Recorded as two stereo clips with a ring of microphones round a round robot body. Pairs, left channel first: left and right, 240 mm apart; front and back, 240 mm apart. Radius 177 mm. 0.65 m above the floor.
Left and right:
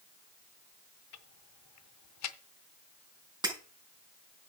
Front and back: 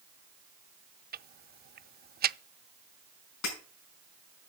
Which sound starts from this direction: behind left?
Ticking, at 1.1 s.